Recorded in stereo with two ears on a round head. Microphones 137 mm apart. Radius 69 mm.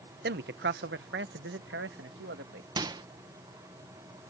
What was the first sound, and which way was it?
A man speaking, 65° right (ahead or behind).